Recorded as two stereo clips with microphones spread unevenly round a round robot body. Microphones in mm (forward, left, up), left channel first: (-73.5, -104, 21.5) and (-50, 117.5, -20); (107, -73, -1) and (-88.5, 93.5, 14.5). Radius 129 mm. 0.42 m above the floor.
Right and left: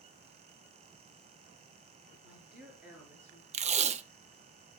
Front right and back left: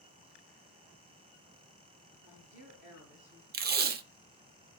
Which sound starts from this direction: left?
Tape being pulled, at 3.5 s.